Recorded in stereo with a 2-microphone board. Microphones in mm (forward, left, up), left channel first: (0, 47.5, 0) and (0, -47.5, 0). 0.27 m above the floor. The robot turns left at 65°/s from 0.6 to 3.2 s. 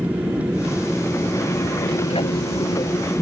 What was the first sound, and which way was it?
An aircraft, 15° right (ahead or behind).